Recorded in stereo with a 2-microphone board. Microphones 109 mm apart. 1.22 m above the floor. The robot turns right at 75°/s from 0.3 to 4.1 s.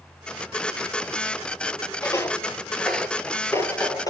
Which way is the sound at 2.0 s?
30° left (ahead or behind).